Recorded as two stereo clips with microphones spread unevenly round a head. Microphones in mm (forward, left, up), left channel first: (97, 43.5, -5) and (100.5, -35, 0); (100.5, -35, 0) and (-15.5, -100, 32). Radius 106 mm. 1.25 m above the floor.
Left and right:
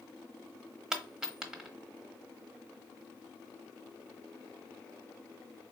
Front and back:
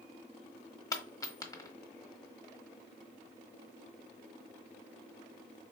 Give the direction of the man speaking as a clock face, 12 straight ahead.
I don't hear a man speaking.